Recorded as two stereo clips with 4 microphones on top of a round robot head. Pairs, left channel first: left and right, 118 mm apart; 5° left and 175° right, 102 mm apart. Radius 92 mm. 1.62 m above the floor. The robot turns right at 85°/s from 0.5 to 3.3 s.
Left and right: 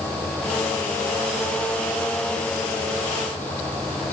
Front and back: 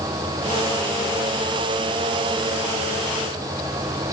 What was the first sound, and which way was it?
Only background noise.